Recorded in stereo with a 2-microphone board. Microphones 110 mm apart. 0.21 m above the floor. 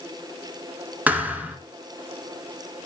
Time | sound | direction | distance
1.1 | a thud | 15° right (ahead or behind) | 1.3 m